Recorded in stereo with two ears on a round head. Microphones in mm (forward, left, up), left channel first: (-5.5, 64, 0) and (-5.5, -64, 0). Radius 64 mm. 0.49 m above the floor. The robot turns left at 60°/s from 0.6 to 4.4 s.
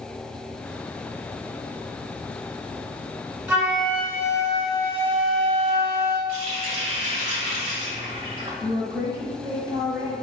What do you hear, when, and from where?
3.5 s a flute: 170° right, 1.2 m; by 6.2 s 135° left, 1.2 m
6.3 s a running tap: 45° right (ahead or behind), 1.7 m
8.6 s a woman speaking: 25° right (ahead or behind), 1.0 m